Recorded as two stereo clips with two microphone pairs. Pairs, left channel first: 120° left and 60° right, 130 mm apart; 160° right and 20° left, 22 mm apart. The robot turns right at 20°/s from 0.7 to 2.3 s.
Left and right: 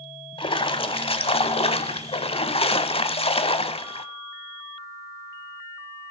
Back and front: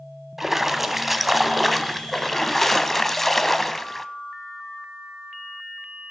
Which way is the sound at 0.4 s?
95° left.